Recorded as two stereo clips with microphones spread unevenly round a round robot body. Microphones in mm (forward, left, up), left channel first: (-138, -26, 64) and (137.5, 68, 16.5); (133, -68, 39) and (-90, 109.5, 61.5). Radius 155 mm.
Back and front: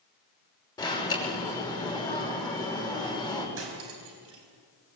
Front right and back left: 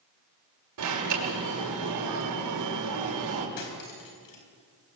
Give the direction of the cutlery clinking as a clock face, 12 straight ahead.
1 o'clock.